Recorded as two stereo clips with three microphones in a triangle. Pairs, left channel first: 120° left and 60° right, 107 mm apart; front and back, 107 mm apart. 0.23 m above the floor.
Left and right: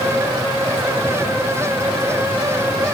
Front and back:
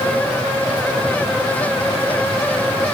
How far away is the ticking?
I don't hear ticking.